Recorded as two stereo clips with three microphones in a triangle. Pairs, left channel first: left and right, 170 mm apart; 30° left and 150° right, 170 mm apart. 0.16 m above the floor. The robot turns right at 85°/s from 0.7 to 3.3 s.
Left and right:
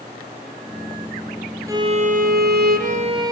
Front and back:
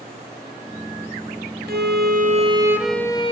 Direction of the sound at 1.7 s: 160° right.